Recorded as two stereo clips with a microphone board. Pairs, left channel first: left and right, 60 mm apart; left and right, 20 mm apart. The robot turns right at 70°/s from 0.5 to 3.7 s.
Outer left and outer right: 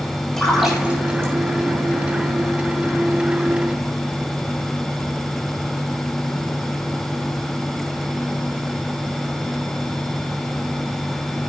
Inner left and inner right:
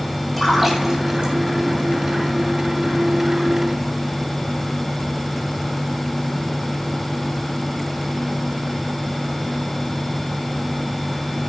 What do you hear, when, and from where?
0.4 s a splash: 10° left (ahead or behind), 9 m; by 1.3 s 50° right (ahead or behind), 9 m